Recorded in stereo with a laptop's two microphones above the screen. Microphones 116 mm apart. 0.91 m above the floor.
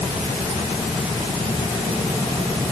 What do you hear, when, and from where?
Only background noise.